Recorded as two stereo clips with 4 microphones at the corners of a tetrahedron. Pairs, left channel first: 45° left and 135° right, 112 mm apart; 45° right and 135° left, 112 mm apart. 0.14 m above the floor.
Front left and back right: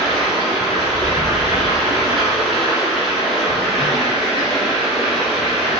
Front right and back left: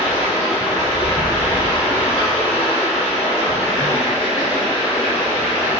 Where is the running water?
50° right, 1.5 m.